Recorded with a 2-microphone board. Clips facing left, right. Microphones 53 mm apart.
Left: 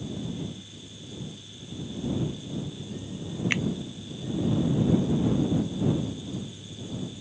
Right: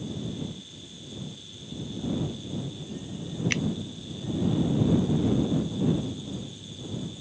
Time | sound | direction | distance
3.5 | a finger snap | 15° left (ahead or behind) | ?